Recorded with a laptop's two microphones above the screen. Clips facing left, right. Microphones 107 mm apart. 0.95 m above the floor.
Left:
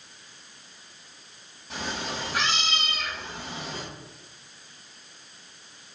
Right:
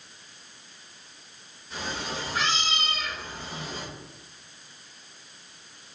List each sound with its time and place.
1.7 s a cat meowing: 85° left, 3 m